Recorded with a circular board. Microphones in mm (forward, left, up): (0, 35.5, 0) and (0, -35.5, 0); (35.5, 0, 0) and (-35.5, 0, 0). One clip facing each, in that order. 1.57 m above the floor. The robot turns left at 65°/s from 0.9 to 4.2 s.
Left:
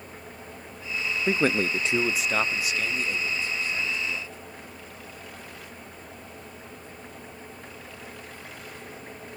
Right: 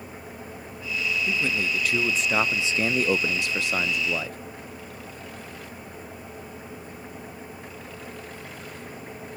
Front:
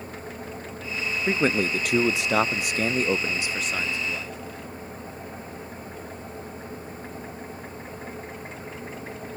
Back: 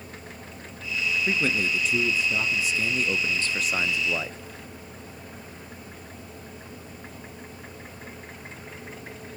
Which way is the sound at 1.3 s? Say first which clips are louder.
Left 8 dB, front 6 dB; 65° left.